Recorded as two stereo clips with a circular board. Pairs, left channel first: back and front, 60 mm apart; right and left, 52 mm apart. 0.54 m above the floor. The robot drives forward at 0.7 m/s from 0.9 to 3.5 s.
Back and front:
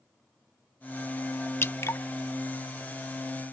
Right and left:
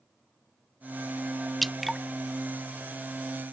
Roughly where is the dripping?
Behind.